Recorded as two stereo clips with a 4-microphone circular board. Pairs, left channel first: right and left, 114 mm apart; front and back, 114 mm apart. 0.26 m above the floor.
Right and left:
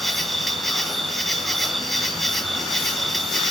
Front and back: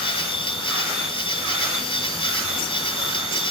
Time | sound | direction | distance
0.0 | an insect | straight ahead | 2.5 m